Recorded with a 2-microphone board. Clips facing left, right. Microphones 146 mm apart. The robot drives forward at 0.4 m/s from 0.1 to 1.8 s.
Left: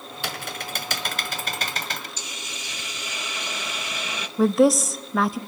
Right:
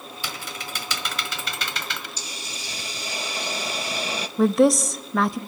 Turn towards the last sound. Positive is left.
turn(degrees=0)  # may be behind; listen again after turning